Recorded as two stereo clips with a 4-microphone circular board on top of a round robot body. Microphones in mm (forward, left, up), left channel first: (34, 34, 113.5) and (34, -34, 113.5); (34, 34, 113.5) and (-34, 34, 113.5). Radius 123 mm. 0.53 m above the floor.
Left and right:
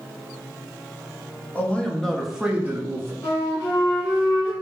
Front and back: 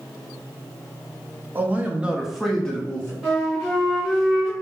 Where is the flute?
100° left, 1.7 m.